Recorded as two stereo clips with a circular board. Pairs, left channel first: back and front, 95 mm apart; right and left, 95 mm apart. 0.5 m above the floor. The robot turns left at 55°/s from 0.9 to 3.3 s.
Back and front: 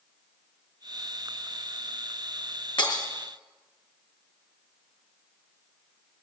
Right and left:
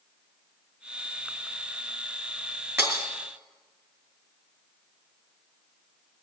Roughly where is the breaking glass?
Behind left.